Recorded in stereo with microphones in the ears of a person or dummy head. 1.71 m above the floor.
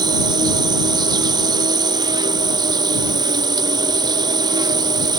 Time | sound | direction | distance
0.0 | an insect | 25° right (ahead or behind) | ?